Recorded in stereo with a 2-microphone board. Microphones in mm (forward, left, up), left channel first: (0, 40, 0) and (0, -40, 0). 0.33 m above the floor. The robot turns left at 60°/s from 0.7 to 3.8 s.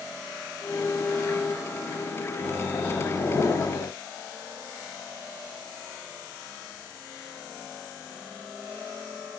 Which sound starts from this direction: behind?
A microwave, at 2.4 s.